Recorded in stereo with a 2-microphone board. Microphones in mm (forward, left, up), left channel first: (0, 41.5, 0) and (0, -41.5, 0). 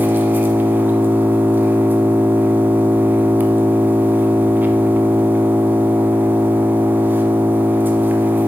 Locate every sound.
0.0 s an engine running: 25° right (ahead or behind), 0.8 m